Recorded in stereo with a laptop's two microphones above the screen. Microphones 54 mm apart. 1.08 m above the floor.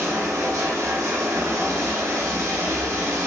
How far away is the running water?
About 0.8 m.